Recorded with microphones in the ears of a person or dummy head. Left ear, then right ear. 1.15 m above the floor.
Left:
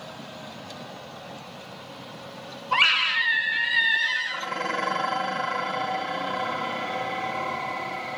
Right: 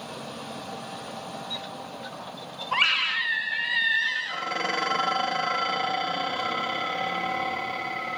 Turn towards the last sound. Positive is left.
turn(degrees=-55)  # may be behind; listen again after turning